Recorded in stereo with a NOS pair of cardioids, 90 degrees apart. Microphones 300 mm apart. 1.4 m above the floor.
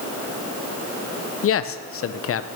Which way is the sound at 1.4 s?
45° left.